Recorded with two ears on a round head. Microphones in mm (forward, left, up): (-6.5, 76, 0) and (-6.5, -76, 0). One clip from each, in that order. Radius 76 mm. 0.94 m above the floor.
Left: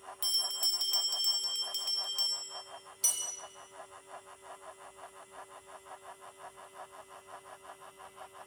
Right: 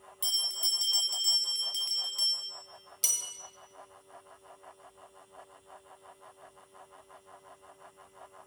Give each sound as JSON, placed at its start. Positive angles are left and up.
{"t": 0.2, "sound": "a bell", "side_deg": 10, "distance_m": 1.1}
{"t": 3.0, "sound": "a bell", "side_deg": -25, "distance_m": 1.1}